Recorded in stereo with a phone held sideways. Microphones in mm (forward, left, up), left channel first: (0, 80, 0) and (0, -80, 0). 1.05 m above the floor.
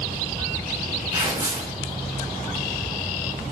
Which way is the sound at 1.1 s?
20° right (ahead or behind).